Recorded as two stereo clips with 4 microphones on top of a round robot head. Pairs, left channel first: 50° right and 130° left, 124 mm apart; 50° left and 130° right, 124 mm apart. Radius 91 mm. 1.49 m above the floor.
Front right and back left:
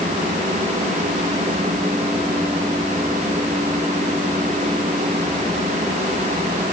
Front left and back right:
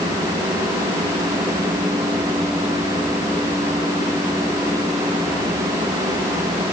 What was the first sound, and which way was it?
Only background noise.